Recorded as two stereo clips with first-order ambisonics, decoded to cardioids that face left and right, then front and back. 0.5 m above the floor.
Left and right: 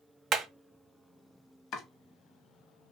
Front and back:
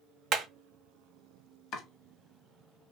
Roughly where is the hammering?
Behind right.